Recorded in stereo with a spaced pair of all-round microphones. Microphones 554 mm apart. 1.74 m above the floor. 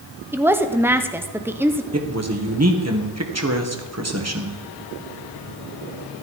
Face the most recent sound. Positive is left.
turn(degrees=-25)  # may be behind; listen again after turning